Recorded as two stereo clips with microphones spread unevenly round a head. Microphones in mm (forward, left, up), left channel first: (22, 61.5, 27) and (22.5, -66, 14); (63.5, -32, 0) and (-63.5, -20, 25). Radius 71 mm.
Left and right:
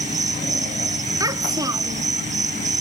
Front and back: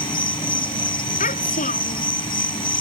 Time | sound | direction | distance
0.0 | an insect | 60° right | ?
1.2 | a child speaking | 30° right | ?